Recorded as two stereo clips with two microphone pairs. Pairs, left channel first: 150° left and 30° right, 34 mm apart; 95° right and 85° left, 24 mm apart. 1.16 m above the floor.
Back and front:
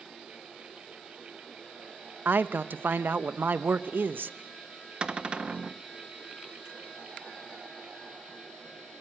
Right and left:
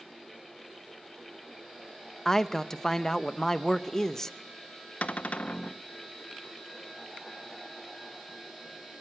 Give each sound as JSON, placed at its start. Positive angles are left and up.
{"t": 2.2, "sound": "a man speaking", "azimuth_deg": -25, "distance_m": 0.8}
{"t": 5.0, "sound": "a cupboard door", "azimuth_deg": -95, "distance_m": 0.7}